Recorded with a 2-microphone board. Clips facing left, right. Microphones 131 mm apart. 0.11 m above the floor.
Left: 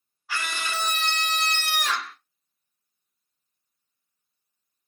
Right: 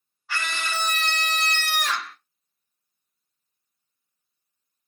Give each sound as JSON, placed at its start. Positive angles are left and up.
{"t": 0.3, "sound": "a scream", "side_deg": 5, "distance_m": 1.4}